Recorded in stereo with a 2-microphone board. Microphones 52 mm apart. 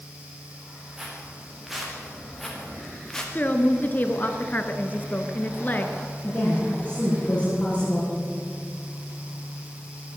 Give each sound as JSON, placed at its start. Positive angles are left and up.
{"t": 1.0, "sound": "footsteps", "side_deg": -10, "distance_m": 6.0}
{"t": 3.4, "sound": "a woman speaking", "side_deg": 35, "distance_m": 1.6}
{"t": 6.2, "sound": "a woman speaking", "side_deg": 25, "distance_m": 8.0}